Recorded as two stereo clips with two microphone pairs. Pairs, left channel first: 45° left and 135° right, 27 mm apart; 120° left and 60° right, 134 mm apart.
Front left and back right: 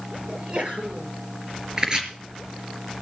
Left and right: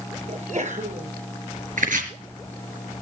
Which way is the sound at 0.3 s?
90° right.